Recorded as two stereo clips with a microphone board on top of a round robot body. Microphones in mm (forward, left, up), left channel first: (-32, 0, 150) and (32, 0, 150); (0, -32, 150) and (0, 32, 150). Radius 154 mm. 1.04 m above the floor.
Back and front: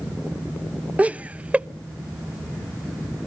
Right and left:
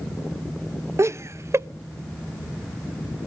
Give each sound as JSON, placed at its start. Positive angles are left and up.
{"t": 1.0, "sound": "laughter", "azimuth_deg": 60, "distance_m": 0.6}